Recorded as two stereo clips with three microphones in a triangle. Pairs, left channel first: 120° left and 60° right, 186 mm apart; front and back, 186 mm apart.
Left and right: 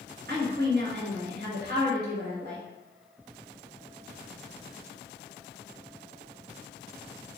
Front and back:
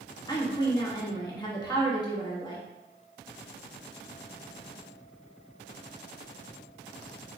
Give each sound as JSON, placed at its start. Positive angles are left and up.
{"t": 0.3, "sound": "a woman speaking", "azimuth_deg": -65, "distance_m": 1.1}